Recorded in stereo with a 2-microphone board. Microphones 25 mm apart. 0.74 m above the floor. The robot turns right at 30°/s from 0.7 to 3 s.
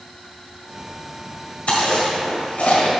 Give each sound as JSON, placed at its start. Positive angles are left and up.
{"t": 1.7, "sound": "chewing", "side_deg": 70, "distance_m": 1.5}